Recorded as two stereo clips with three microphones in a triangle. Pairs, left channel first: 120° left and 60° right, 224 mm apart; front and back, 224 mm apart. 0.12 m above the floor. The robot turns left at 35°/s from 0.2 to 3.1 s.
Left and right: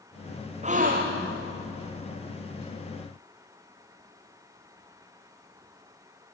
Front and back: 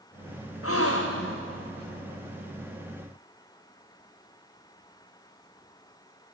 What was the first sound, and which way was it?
A gasp, straight ahead.